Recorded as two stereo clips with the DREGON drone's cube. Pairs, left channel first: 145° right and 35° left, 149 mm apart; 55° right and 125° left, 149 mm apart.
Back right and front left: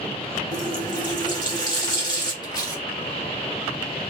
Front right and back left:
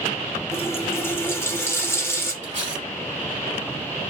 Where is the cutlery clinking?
155° left, 1.1 m.